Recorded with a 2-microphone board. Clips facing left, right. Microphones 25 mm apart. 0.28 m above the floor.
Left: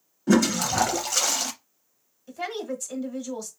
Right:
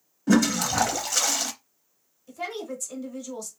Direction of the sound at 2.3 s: 20° left (ahead or behind).